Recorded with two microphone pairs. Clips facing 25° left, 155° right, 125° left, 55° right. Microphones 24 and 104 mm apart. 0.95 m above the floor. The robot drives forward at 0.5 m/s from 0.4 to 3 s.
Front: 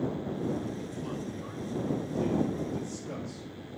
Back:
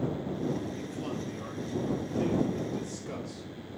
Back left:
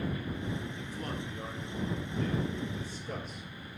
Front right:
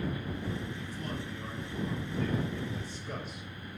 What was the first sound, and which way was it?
A man speaking, 165° left.